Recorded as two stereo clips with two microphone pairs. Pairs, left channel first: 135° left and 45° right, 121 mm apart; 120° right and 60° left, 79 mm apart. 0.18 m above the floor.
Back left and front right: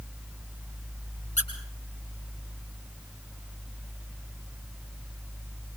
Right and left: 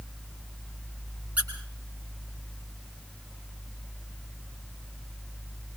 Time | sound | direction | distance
1.4 | a squeak | 130° left | 7 m